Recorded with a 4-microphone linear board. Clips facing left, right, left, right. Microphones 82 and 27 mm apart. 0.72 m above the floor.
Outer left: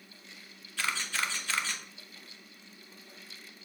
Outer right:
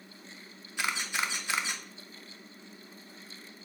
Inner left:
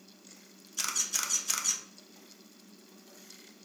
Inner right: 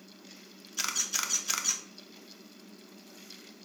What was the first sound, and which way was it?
A camera shutter, 15° right (ahead or behind).